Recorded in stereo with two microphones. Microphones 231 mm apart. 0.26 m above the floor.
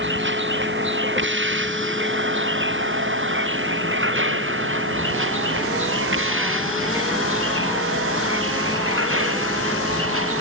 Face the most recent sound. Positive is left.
turn(degrees=-65)  # may be behind; listen again after turning